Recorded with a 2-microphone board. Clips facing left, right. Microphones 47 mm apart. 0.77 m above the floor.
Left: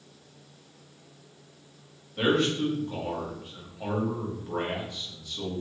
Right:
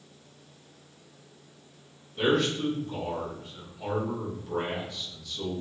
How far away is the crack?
No crack in this recording.